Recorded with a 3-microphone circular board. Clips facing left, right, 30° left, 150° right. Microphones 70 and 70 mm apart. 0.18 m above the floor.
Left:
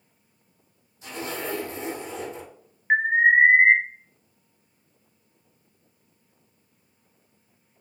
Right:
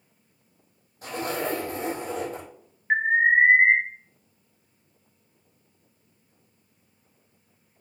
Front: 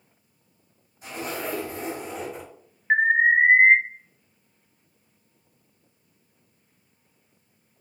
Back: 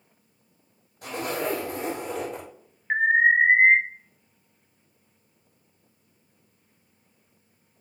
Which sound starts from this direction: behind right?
A zipper, at 1.0 s.